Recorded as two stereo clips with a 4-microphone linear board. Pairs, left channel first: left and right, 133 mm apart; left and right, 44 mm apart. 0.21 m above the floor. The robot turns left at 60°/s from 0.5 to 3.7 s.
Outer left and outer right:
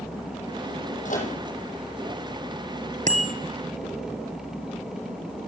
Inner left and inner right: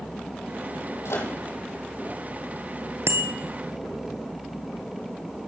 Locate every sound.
1.1 s a microwave: 70° left (ahead or behind), 7 m; by 1.3 s 80° left, 7 m
3.1 s a bicycle bell: 65° right (ahead or behind), 3 m; by 3.3 s 55° right (ahead or behind), 3 m